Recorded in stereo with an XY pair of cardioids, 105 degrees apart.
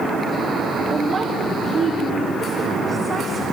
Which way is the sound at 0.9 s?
45° right.